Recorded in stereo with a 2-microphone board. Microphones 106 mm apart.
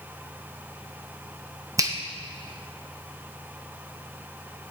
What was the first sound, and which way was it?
A finger snap, 30° right (ahead or behind).